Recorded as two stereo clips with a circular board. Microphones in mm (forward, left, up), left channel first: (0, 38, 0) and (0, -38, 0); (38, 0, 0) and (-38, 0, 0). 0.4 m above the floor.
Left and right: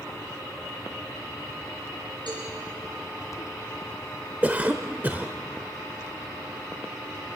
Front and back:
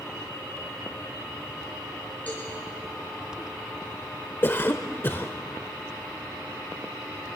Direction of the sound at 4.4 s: 35° right.